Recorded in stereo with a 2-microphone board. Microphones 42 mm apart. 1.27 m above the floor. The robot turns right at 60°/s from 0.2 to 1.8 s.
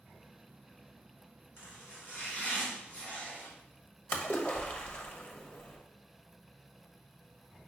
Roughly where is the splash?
Left.